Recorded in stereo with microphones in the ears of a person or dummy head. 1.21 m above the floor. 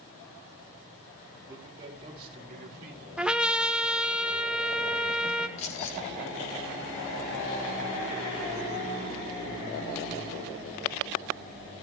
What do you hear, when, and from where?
1.5 s a man speaking: 20° right (ahead or behind), 3.5 m; by 3.0 s 50° right (ahead or behind), 2.5 m
3.2 s a trumpet: 5° right (ahead or behind), 0.8 m
5.6 s keys jangling: 40° left (ahead or behind), 2.5 m